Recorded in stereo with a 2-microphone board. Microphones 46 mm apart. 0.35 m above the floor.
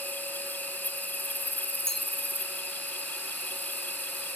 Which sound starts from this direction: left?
An insect, at 0.0 s.